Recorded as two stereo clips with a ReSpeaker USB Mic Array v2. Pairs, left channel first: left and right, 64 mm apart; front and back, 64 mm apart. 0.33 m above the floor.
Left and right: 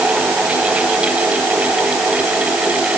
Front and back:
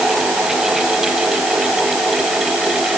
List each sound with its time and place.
Only background noise.